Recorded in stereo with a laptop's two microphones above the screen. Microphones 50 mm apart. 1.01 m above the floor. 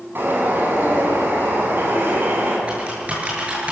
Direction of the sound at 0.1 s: 45° right (ahead or behind).